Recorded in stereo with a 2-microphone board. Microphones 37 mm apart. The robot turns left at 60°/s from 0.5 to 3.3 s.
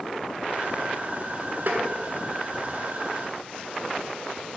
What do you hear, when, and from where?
1.7 s tapping: 60° right (ahead or behind), 1.1 m; by 1.8 s 70° right (ahead or behind), 1.1 m